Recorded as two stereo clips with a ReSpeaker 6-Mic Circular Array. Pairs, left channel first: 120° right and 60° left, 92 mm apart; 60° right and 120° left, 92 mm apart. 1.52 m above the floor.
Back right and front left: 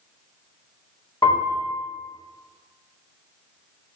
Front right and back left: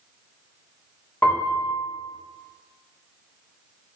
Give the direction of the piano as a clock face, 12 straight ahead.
4 o'clock.